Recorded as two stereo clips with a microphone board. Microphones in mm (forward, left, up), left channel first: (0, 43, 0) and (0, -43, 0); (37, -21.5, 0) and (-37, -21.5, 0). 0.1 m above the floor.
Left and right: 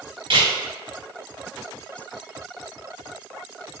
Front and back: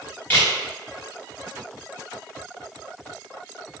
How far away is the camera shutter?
About 1.6 m.